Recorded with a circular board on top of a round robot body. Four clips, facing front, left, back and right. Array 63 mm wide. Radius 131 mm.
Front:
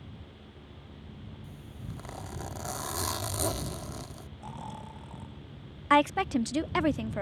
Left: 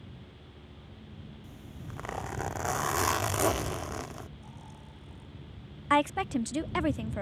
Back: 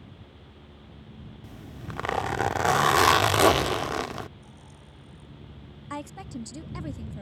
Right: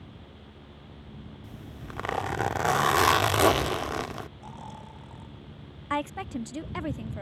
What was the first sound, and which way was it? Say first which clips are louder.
A zipper: right 5 dB, back 8 dB; 150° right.